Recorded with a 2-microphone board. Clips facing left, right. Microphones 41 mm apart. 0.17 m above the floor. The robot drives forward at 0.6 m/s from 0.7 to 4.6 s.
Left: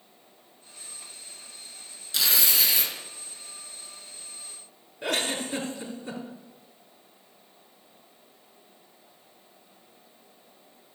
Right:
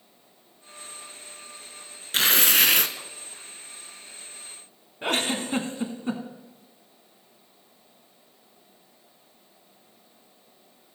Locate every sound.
2.1 s tearing paper: 45° right (ahead or behind), 0.7 m; by 2.9 s 55° right (ahead or behind), 0.6 m
5.0 s a giggle: 35° right (ahead or behind), 1.2 m